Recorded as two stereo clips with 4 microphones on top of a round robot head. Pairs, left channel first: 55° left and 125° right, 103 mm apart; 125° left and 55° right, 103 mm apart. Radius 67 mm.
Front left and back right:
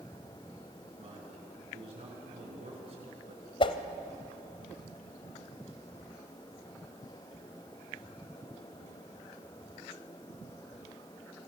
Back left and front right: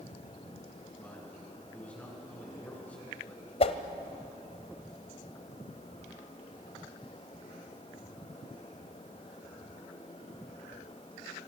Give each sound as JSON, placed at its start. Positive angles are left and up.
{"t": 1.0, "sound": "a man speaking", "azimuth_deg": -155, "distance_m": 7.5}
{"t": 3.6, "sound": "a whoosh", "azimuth_deg": 95, "distance_m": 1.2}